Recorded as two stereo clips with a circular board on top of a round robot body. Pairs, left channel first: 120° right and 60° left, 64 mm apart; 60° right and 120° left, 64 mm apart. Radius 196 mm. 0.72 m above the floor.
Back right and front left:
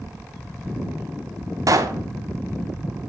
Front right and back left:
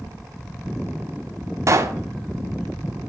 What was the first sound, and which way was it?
A pop, 85° left.